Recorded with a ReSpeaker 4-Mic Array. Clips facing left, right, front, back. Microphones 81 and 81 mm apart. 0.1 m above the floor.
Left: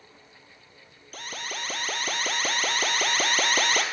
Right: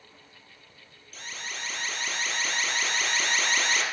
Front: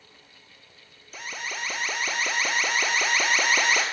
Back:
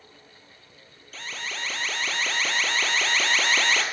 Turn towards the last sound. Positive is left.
turn(degrees=75)